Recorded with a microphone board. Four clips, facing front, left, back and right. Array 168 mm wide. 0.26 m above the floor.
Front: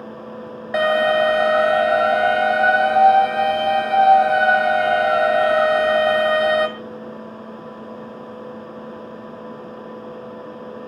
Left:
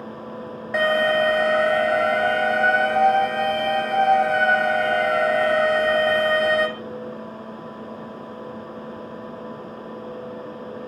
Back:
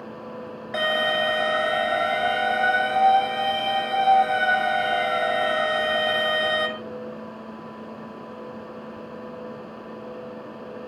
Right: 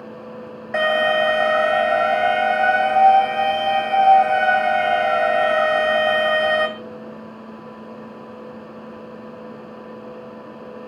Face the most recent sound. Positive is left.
turn(degrees=-5)